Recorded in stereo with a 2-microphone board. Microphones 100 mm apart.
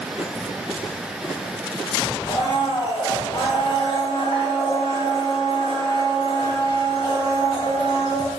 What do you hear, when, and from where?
2.3 s a blender: 65° left (ahead or behind), 1.0 m